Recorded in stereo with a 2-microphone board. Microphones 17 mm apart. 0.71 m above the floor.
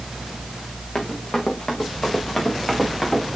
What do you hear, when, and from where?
0.9 s running footsteps: 45° left (ahead or behind), 3 m; by 3.4 s 20° left (ahead or behind), 4.5 m